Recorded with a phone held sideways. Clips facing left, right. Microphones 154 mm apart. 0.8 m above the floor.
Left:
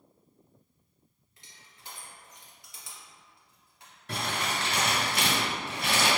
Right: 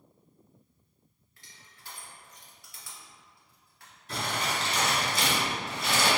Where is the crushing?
20° left (ahead or behind), 0.9 m.